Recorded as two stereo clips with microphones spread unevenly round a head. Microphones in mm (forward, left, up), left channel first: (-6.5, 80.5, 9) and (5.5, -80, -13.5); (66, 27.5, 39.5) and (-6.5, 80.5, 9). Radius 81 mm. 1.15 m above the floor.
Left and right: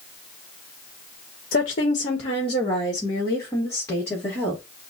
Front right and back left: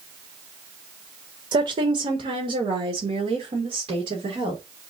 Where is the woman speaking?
135° left, 1.0 m; by 4.6 s 175° left, 2.5 m.